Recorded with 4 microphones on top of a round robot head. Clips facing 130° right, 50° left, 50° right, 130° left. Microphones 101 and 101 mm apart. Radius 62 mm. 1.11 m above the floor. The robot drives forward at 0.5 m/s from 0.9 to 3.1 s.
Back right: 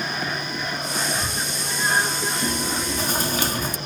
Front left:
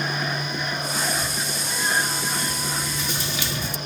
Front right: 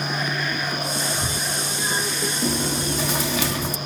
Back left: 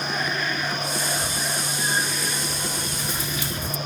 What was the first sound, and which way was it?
A scream, 65° right.